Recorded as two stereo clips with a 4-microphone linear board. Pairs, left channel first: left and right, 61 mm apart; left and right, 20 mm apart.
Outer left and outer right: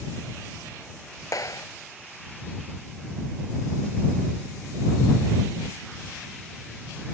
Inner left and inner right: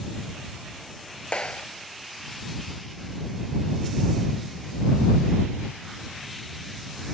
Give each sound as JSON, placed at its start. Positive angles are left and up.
{"t": 1.3, "sound": "a clap", "side_deg": 65}